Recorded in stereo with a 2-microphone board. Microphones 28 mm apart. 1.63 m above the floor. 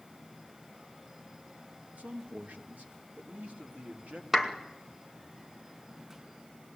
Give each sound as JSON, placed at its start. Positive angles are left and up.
{"t": 2.0, "sound": "a man speaking", "side_deg": -70, "distance_m": 2.0}
{"t": 4.3, "sound": "a clap", "side_deg": -10, "distance_m": 2.0}